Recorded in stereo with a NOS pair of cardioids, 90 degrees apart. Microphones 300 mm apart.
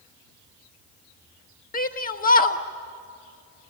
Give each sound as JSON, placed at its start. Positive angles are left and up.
{"t": 1.7, "sound": "a shout", "azimuth_deg": 30, "distance_m": 1.5}